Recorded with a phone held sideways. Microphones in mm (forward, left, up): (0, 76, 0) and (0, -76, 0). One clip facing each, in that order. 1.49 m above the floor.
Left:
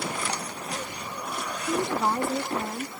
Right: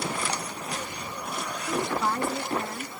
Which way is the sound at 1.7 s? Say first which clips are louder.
Left 2 dB; 20° left (ahead or behind).